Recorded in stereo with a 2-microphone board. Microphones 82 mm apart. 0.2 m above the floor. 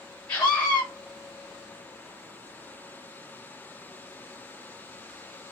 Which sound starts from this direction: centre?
A scream, at 0.3 s.